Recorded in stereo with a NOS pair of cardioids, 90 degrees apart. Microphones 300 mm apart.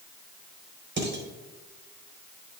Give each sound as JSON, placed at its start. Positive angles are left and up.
{"t": 1.0, "sound": "dishes clattering", "azimuth_deg": -40, "distance_m": 5.0}